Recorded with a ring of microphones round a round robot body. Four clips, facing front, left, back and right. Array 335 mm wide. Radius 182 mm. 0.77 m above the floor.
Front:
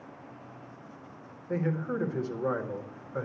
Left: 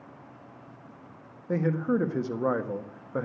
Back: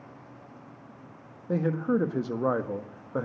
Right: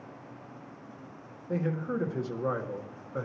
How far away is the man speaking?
About 1.5 m.